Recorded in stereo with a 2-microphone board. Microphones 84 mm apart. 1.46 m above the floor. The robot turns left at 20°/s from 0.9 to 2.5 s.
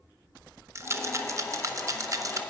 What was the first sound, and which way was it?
A rattle, 35° right (ahead or behind).